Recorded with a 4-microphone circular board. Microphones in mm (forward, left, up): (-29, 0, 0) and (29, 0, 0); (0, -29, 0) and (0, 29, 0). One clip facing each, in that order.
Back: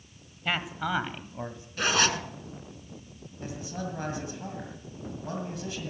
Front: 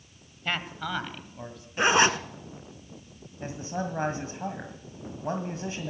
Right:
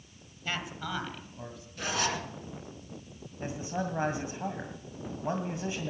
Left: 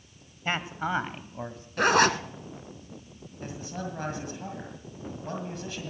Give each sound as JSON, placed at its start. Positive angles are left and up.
{"t": 0.5, "sound": "a man speaking", "azimuth_deg": 100, "distance_m": 1.2}
{"t": 1.8, "sound": "a zipper", "azimuth_deg": 65, "distance_m": 0.9}
{"t": 3.4, "sound": "a man speaking", "azimuth_deg": -35, "distance_m": 1.8}